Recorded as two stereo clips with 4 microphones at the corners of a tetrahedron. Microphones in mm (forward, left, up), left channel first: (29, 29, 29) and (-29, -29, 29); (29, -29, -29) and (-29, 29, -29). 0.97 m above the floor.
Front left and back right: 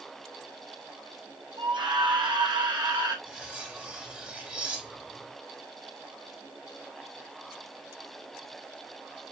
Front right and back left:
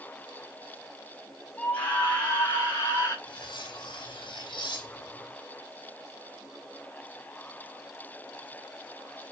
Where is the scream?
115° right, 5 m; by 3.1 s 95° right, 5 m.